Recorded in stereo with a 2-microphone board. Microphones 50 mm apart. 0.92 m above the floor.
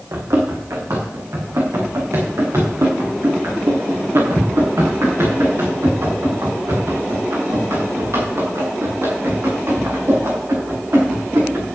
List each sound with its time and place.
0.1 s running footsteps: 75° right (ahead or behind), 4 m; by 11.7 s 70° right (ahead or behind), 10 m